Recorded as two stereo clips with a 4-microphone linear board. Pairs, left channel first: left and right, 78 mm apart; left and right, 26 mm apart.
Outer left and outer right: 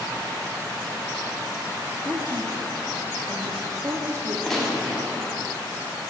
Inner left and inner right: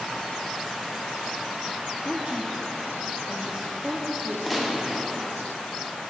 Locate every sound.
2.0 s a woman speaking: 45° right (ahead or behind), 1.0 m
4.5 s a gunshot: 5° left (ahead or behind), 1.8 m